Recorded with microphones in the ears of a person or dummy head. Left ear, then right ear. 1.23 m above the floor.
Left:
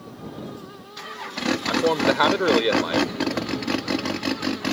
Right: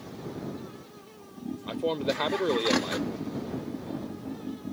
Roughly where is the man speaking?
Left.